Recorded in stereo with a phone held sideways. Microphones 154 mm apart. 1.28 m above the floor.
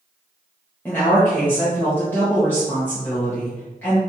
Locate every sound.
0.8 s a woman speaking: 10° left (ahead or behind), 1.1 m